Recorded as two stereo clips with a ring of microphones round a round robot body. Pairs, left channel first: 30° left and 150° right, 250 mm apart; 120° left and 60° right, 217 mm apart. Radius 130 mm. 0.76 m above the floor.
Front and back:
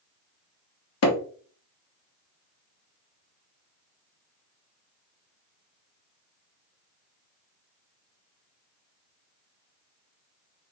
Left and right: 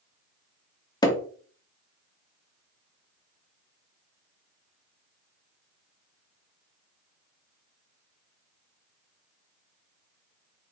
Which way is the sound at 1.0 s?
50° left.